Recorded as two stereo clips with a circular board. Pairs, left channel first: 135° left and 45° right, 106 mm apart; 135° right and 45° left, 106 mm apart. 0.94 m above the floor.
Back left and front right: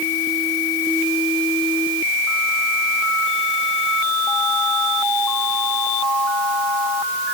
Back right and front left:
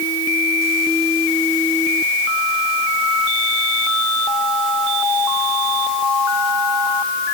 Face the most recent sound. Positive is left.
No sound to turn to.